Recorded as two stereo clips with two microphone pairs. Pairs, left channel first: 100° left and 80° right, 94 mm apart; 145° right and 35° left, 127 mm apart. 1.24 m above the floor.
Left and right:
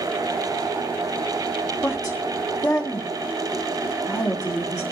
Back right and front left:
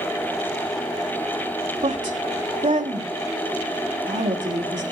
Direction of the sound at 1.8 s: 55° left.